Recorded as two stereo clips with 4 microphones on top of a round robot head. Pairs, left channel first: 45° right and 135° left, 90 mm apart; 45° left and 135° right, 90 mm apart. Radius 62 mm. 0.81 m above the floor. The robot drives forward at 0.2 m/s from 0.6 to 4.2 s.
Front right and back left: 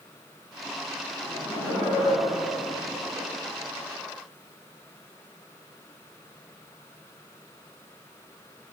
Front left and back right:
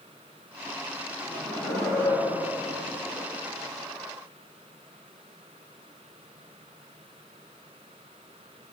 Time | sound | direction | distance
1.2 | laughter | 50° left | 5 m